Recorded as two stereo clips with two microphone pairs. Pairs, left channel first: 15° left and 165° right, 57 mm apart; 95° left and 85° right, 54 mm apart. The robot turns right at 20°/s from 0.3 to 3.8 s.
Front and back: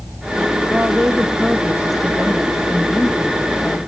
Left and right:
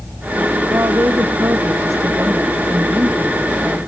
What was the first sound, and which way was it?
A woman speaking, 100° right.